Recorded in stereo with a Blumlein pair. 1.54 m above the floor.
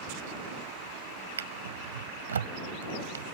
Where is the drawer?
70° right.